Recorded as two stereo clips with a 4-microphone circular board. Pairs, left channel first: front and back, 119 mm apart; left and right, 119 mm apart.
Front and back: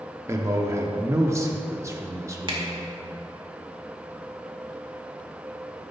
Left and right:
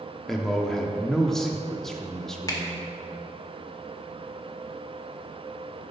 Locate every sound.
0.3 s a man speaking: 170° left, 0.8 m
2.5 s a finger snap: 140° left, 1.5 m